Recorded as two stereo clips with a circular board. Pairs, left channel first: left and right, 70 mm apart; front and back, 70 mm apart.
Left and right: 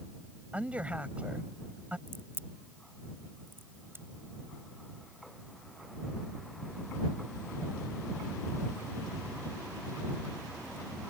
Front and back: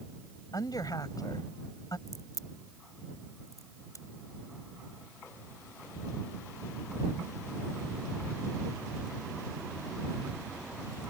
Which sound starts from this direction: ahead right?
A crack, at 2.1 s.